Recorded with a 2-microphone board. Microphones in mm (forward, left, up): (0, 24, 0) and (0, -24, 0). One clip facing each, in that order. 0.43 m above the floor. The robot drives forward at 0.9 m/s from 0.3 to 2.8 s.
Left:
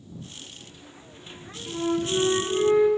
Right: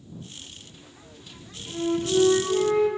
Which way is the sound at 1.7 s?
20° left (ahead or behind).